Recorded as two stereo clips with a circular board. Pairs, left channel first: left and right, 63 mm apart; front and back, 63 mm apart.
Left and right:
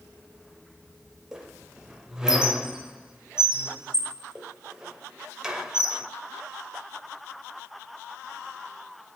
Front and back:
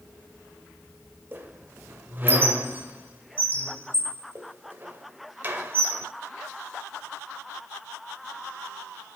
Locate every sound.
1.3 s a squeak: 165° right, 0.6 m